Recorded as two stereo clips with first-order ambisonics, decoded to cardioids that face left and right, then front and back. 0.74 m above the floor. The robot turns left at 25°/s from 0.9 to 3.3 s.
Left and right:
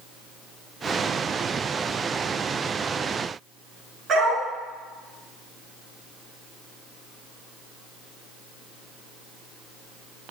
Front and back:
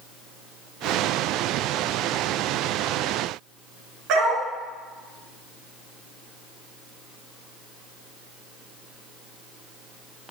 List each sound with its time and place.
4.1 s a dog barking: 145° right, 3 m